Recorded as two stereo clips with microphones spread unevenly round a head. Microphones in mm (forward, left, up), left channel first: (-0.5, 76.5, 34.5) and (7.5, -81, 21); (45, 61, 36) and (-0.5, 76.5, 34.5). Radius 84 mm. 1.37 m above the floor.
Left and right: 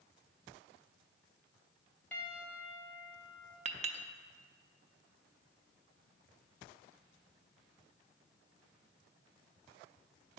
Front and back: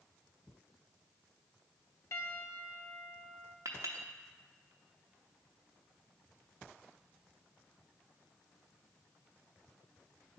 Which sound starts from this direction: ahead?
A piano, at 2.1 s.